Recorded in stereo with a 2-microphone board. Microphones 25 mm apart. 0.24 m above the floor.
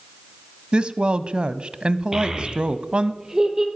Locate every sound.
0.7 s a woman speaking: 40° right (ahead or behind), 1.3 m
2.1 s a child speaking: 25° right (ahead or behind), 4 m